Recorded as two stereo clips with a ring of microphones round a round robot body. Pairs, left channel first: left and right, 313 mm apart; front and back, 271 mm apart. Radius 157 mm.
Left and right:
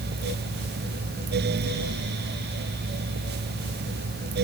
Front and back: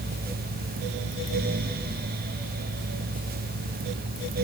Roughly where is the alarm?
No alarm in this recording.